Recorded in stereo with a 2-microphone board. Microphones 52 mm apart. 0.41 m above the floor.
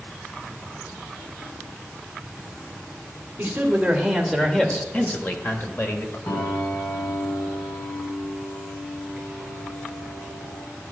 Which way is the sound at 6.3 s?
70° left (ahead or behind).